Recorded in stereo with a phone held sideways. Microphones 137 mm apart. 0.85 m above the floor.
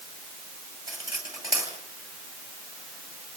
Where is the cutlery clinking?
25° right (ahead or behind), 10 m.